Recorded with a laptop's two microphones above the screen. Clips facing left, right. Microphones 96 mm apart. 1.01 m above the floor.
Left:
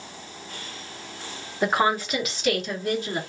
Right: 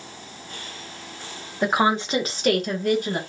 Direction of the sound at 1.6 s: Centre (ahead or behind).